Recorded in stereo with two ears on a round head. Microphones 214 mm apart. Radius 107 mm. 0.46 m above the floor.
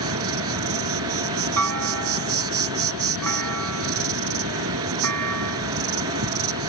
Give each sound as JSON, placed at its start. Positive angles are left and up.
{"t": 0.0, "sound": "an insect", "side_deg": -60}
{"t": 1.6, "sound": "a clunk", "side_deg": -75}